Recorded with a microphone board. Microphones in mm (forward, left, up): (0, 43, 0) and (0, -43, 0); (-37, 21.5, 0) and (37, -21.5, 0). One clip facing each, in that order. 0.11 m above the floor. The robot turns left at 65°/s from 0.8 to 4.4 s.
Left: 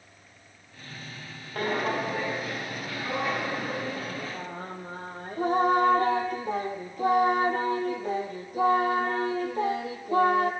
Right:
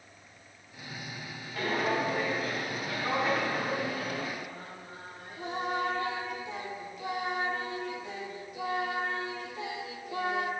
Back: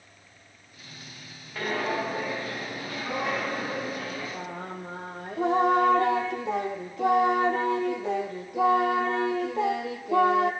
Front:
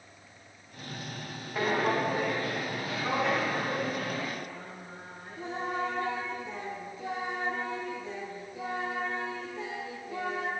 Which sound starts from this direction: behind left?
Singing, at 4.3 s.